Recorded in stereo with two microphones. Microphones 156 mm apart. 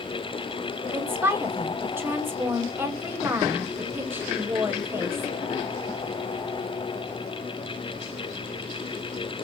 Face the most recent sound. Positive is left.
turn(degrees=-15)  # may be behind; listen again after turning